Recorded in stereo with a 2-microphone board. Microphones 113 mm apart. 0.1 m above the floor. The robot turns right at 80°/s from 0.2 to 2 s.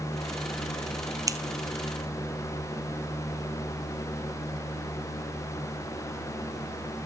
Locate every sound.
1.3 s scissors: 30° right (ahead or behind), 0.8 m; by 1.4 s 40° right (ahead or behind), 0.8 m